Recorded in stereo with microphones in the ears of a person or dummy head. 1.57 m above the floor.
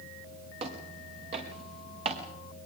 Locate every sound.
0.6 s footsteps: 40° right (ahead or behind), 5.5 m